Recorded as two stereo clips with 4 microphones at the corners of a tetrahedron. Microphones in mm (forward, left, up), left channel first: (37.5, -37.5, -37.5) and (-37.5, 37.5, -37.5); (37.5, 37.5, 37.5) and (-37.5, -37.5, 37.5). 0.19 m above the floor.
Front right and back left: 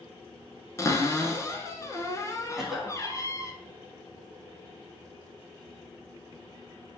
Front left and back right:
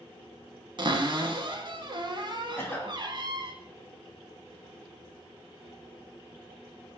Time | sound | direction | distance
0.8 | a cupboard door | 100° right | 0.6 m
2.6 | a cough | 55° left | 1.0 m